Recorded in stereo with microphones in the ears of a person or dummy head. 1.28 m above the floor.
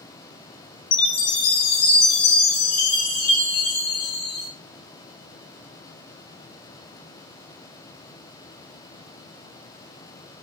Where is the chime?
55° left (ahead or behind), 1.3 m.